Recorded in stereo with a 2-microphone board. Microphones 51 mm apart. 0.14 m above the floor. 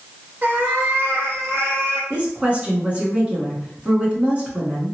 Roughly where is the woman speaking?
Right.